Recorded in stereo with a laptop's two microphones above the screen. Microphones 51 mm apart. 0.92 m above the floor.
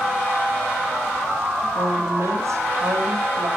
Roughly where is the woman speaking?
Right.